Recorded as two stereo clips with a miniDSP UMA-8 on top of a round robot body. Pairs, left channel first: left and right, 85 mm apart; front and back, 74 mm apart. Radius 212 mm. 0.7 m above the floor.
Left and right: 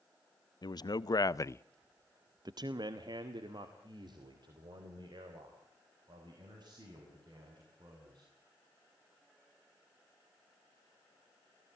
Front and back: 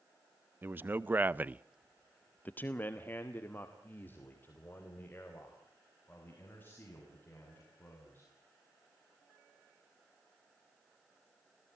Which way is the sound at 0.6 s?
120° left.